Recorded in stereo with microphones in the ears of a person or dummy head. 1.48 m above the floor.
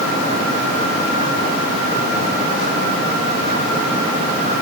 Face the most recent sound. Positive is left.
No sound to turn to.